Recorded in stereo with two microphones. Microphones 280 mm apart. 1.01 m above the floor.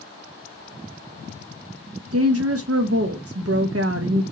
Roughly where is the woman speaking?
Right.